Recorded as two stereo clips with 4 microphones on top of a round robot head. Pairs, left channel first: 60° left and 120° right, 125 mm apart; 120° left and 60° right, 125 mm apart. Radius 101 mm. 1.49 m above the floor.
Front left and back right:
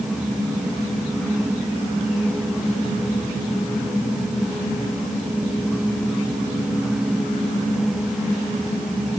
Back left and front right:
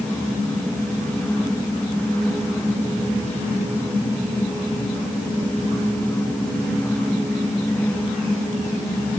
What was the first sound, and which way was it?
Only background noise.